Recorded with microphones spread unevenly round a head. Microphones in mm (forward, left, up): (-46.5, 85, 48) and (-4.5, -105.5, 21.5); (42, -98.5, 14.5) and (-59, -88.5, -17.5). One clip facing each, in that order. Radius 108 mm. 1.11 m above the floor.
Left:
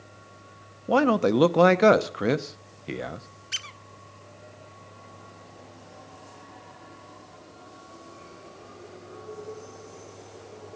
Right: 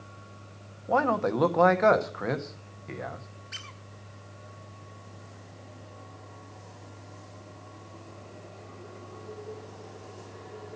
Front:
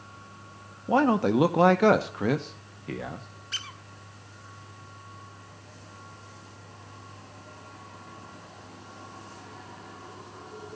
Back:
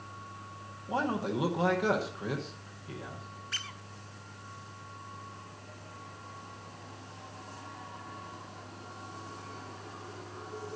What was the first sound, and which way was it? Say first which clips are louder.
A man speaking: left 5 dB, front 10 dB; 50° left.